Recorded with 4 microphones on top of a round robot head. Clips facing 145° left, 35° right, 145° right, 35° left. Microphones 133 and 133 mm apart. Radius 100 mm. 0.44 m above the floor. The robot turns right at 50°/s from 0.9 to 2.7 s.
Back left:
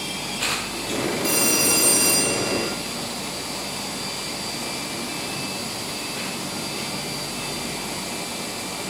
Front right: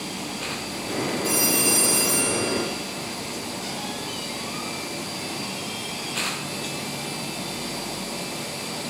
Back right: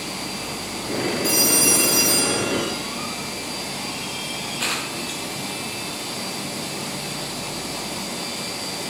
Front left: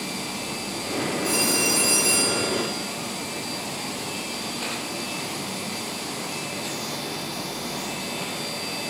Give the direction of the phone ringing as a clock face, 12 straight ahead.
6 o'clock.